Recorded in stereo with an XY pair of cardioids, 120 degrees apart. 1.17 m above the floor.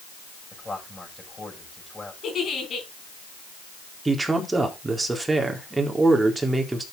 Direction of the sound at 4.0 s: 15° right.